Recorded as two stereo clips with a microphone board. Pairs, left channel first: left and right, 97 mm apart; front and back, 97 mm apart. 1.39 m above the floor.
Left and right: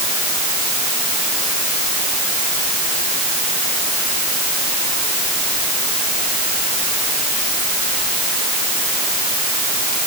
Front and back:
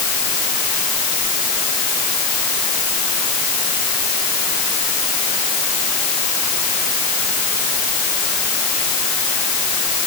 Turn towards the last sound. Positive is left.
No sound to turn to.